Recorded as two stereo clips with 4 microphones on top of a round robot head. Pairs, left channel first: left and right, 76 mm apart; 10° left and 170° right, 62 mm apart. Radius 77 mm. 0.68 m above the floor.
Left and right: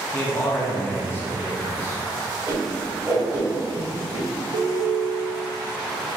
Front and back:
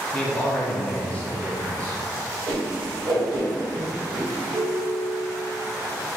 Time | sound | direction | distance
0.1 | a man speaking | 65° left | 1.0 m
2.5 | a whoosh | 155° right | 1.1 m
4.5 | a ringtone | 100° right | 0.6 m